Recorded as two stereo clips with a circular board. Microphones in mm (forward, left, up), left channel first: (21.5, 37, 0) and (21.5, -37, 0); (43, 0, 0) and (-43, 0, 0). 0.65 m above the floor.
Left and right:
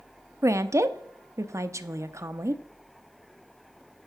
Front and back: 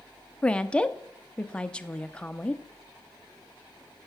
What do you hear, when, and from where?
0.4 s a woman speaking: 70° right, 0.6 m